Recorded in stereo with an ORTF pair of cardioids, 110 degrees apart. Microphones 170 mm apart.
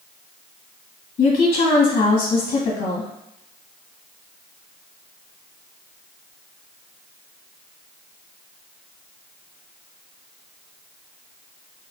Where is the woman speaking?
60° left, 1.7 m.